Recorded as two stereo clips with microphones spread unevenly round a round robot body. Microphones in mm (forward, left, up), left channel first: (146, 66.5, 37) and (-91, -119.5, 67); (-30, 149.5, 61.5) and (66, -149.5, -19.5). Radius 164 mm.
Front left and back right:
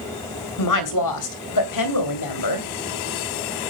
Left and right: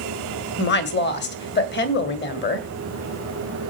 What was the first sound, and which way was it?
A woman speaking, 45° left.